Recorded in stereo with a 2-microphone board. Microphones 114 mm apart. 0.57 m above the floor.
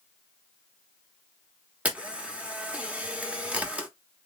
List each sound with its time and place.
1.9 s a camera shutter: 10° right (ahead or behind), 0.9 m